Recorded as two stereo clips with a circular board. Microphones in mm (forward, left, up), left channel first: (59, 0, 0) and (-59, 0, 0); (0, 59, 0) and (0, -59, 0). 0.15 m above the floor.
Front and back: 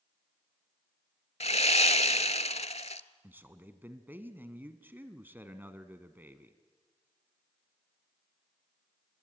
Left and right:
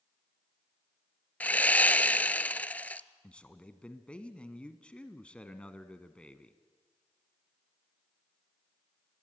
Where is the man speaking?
150° left, 1.0 m.